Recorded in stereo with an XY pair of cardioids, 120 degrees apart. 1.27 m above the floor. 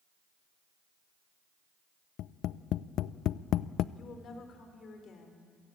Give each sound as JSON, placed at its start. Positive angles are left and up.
{"t": 2.2, "sound": "tapping", "azimuth_deg": 65, "distance_m": 0.5}
{"t": 4.0, "sound": "a woman speaking", "azimuth_deg": 50, "distance_m": 4.5}